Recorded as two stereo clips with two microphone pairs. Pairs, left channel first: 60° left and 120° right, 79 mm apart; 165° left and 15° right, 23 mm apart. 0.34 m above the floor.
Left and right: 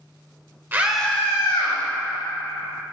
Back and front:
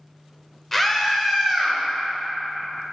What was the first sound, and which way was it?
A scream, 125° right.